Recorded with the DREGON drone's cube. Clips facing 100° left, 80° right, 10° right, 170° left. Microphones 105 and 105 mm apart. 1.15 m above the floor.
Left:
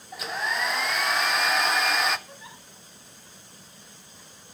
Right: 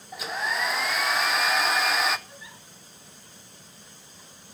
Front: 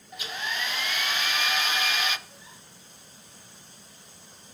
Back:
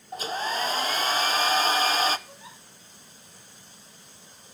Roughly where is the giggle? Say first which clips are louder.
Left 1 dB, back 4 dB; behind left.